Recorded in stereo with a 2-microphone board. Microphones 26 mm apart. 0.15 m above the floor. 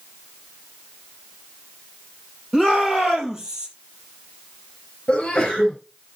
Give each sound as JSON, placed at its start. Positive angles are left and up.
{"t": 2.5, "sound": "a shout", "side_deg": -20, "distance_m": 5.5}
{"t": 5.1, "sound": "a sneeze", "side_deg": 35, "distance_m": 2.5}